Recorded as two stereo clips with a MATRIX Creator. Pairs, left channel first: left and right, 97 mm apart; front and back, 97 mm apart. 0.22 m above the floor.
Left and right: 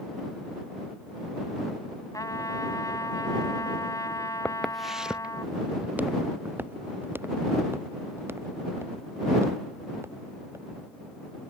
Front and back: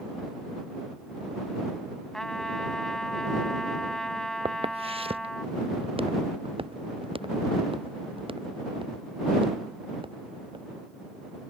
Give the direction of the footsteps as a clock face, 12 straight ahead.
6 o'clock.